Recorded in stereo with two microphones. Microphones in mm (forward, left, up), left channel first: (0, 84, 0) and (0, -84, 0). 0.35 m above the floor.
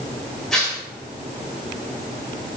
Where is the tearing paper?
5° left (ahead or behind), 1.1 m.